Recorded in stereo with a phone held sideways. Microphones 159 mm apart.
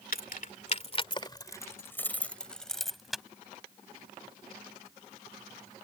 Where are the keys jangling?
65° left (ahead or behind); by 3.2 s centre (ahead or behind).